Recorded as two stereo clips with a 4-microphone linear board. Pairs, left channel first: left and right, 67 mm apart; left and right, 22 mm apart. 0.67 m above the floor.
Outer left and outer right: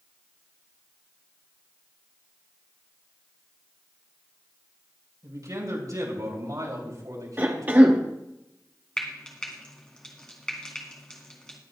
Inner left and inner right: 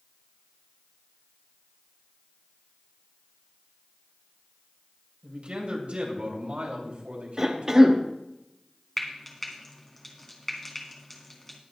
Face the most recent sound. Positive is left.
turn(degrees=15)  # may be behind; listen again after turning